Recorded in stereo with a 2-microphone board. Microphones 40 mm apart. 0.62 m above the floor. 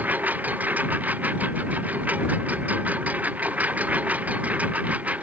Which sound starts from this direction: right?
A lawn mower, at 0.0 s.